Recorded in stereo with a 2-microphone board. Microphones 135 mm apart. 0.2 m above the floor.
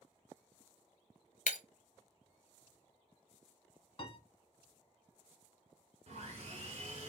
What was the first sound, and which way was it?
Breaking glass, 75° left (ahead or behind).